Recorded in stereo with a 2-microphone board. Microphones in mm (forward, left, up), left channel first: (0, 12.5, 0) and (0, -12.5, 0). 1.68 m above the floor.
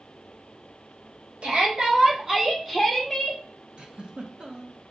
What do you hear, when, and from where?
1.4 s a shout: 45° right (ahead or behind), 1.1 m; by 3.4 s 15° left (ahead or behind), 1.2 m
3.8 s a giggle: 40° right (ahead or behind), 0.6 m